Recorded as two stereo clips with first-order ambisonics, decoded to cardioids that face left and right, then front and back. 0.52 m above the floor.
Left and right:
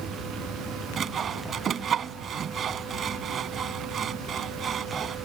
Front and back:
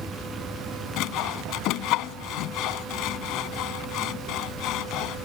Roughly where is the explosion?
I don't hear an explosion.